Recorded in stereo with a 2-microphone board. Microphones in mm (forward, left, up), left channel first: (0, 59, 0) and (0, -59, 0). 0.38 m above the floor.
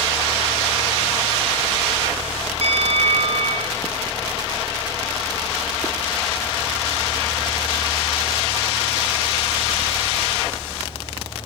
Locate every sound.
2.6 s a bell: 65° right (ahead or behind), 3.5 m